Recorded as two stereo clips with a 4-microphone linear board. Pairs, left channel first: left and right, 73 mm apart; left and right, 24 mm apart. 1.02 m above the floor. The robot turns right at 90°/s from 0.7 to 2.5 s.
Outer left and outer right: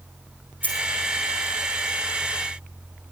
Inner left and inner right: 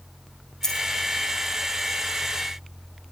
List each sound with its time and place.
0.6 s a dropped coin: 20° left (ahead or behind), 4.5 m; by 0.9 s 5° left (ahead or behind), 4.5 m